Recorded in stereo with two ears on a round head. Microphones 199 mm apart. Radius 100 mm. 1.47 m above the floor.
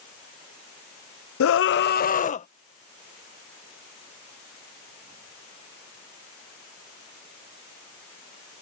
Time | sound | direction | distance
1.4 | a scream | 70° left (ahead or behind) | ?